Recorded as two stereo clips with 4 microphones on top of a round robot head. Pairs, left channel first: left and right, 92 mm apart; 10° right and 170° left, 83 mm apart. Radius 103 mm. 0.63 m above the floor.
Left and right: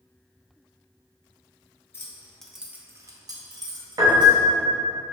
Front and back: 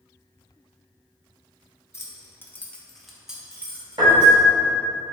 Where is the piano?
145° right, 0.6 m.